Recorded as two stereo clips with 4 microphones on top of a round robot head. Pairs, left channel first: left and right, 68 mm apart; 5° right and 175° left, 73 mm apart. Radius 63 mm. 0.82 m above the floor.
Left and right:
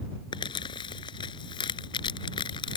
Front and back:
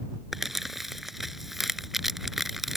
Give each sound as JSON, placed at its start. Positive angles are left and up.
{"t": 0.3, "sound": "crumpling", "azimuth_deg": 85}